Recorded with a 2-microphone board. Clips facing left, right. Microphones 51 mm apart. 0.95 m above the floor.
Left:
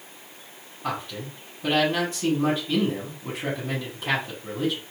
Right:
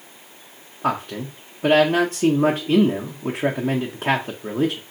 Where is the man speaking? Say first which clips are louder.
Right 7 dB; 60° right (ahead or behind), 0.6 m.